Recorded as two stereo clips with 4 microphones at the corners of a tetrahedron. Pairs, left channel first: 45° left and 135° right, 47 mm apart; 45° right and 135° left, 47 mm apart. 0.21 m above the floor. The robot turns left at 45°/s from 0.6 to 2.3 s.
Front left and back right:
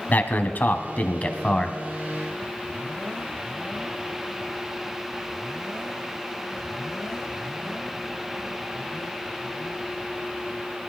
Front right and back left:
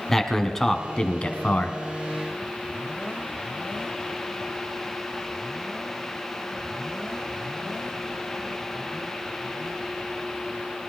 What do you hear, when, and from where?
0.1 s a man speaking: 30° left, 1.5 m; by 1.8 s 20° right, 1.5 m